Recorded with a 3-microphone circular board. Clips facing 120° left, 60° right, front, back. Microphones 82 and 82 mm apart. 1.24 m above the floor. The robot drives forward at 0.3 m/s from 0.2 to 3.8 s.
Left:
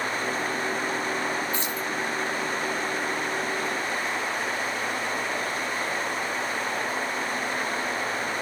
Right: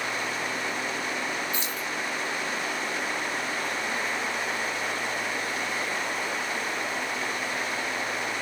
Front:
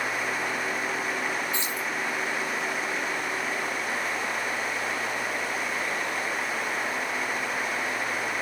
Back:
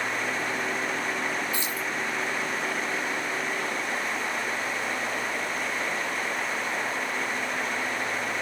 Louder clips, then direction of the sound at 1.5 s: Left 3 dB, even; 65° left.